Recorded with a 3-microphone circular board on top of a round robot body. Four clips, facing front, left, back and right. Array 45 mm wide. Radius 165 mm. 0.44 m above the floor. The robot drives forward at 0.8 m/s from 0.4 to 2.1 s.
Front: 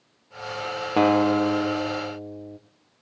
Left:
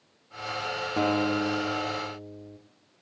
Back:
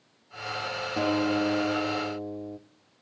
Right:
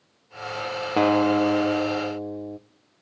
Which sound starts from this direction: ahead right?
A guitar, at 1.0 s.